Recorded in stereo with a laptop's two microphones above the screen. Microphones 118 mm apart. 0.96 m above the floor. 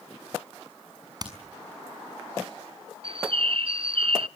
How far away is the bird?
About 0.5 m.